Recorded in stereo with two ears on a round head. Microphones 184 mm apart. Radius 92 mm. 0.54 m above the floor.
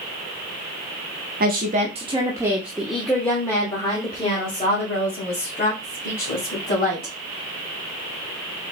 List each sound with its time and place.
1.4 s a woman speaking: 45° right (ahead or behind), 0.9 m; by 7.1 s 35° left (ahead or behind), 3 m